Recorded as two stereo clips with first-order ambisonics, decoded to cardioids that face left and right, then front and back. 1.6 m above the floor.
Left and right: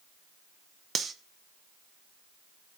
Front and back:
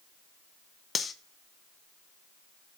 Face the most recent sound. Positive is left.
turn(degrees=-50)